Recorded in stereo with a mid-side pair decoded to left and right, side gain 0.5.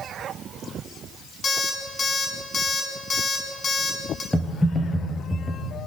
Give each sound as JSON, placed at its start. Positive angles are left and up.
{"t": 1.4, "sound": "an alarm clock", "azimuth_deg": 35, "distance_m": 8.0}
{"t": 4.3, "sound": "typing on a keyboard", "azimuth_deg": 10, "distance_m": 5.0}